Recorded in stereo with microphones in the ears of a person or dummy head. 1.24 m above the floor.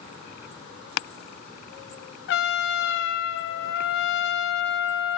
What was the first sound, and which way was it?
A trumpet, 70° left (ahead or behind).